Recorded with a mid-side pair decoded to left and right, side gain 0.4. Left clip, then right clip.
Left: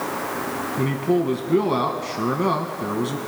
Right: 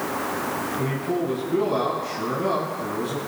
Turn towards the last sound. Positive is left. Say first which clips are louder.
# left 4 dB
turn(degrees=60)